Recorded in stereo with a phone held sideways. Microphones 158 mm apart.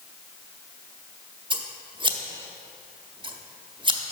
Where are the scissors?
30° right (ahead or behind), 0.6 m.